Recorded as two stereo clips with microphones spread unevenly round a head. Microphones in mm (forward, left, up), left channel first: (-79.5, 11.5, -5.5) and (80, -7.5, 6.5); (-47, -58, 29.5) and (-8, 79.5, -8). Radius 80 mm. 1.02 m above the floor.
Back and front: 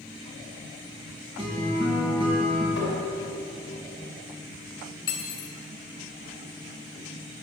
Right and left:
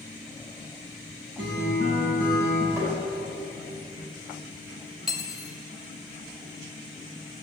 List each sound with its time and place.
1.4 s a guitar: 55° left, 5.5 m
2.8 s tapping: 150° left, 5.5 m
5.1 s cutlery clinking: 165° left, 2.5 m